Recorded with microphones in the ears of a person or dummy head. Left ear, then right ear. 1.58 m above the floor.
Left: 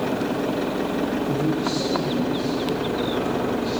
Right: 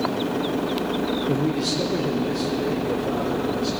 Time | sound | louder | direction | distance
1.3 | a man speaking | even | 60° right (ahead or behind) | 1.0 m